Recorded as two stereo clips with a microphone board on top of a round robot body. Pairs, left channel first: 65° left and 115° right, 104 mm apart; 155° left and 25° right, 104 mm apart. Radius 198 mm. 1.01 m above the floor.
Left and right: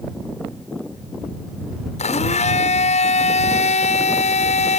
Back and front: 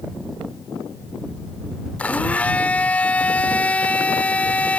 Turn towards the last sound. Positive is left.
turn(degrees=80)